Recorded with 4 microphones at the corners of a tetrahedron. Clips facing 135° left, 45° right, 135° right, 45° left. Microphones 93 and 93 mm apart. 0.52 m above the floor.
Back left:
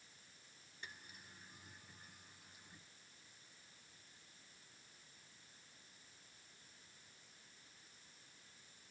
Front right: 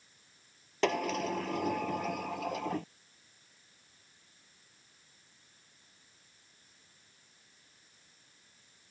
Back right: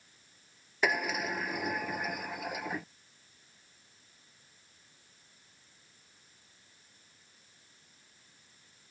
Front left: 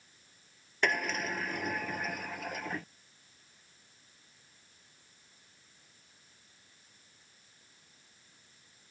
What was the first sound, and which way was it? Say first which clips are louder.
A sliding door: front right 29 dB, back right 1 dB; 55° right.